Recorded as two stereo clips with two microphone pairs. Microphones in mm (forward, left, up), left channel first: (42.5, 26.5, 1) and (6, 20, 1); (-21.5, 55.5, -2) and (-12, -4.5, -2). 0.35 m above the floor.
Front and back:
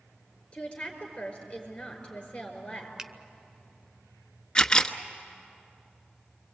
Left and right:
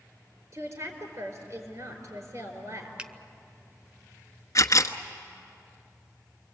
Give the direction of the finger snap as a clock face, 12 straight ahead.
4 o'clock.